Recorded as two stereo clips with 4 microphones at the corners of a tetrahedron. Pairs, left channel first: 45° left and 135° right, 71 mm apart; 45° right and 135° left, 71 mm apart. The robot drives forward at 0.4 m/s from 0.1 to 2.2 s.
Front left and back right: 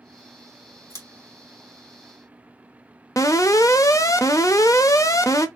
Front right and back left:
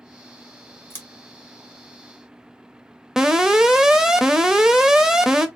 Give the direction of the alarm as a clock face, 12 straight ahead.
10 o'clock.